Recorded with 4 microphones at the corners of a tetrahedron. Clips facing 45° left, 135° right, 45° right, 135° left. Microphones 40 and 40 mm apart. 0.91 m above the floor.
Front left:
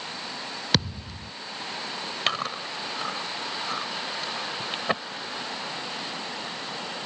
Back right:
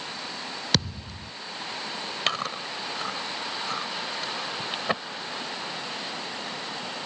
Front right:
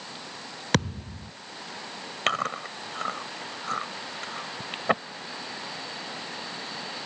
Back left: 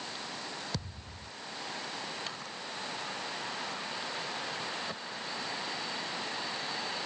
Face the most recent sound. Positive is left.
turn(degrees=-40)